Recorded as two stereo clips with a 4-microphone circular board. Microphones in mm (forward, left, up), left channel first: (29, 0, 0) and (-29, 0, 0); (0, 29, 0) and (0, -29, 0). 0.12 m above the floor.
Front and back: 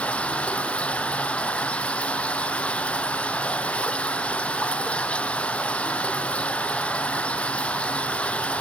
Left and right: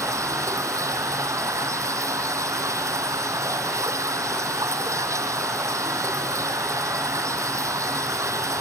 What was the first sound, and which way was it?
Running water, 70° right.